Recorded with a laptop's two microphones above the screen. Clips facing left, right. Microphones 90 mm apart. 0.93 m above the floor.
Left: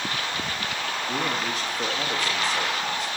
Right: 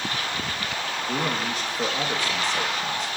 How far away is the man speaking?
About 1.1 m.